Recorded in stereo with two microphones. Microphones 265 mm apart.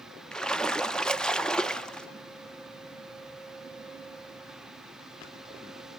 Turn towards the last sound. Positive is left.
turn(degrees=0)  # may be behind; listen again after turning